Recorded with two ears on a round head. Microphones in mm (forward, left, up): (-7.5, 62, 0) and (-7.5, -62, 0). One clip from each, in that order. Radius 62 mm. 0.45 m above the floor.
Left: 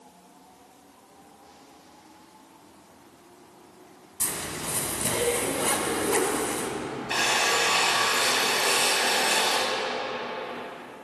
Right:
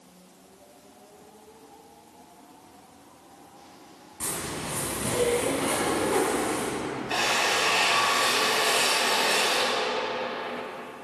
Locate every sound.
4.2 s a zipper: 65° left (ahead or behind), 2.5 m
7.1 s a drill: 25° left (ahead or behind), 1.9 m